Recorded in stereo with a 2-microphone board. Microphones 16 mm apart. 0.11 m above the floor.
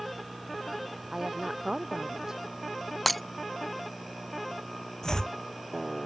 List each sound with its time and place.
1.1 s a woman speaking: 35° right (ahead or behind)
3.1 s breaking glass: 5° left (ahead or behind)
5.0 s chopping: 45° left (ahead or behind)